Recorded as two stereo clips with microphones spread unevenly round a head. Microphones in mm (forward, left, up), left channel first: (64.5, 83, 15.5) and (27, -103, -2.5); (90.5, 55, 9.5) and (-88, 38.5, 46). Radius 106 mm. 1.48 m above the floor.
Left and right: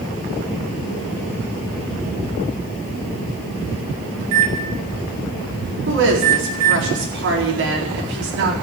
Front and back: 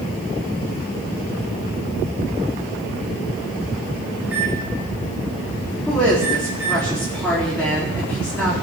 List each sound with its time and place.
4.2 s a microwave: 95° right, 4 m
5.9 s a woman speaking: 80° right, 4 m